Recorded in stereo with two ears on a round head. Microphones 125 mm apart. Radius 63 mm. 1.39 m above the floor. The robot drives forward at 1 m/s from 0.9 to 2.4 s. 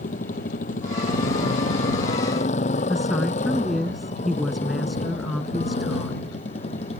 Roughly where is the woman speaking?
Centre.